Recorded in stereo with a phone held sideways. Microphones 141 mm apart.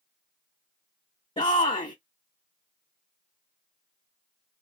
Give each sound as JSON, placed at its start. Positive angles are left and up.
{"t": 1.4, "sound": "a shout", "side_deg": 45, "distance_m": 0.6}